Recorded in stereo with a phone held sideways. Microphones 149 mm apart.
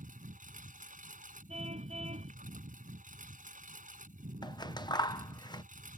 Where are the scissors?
30° left (ahead or behind).